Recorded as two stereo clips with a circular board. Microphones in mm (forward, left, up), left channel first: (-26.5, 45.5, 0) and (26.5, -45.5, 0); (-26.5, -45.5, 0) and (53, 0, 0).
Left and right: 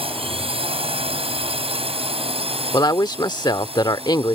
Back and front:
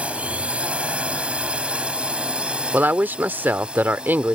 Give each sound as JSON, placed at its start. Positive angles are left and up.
{"t": 0.0, "sound": "a drone", "azimuth_deg": -45}
{"t": 2.7, "sound": "a woman speaking", "azimuth_deg": 90}